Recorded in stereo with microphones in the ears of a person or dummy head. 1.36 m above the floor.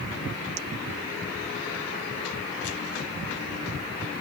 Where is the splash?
No splash in this recording.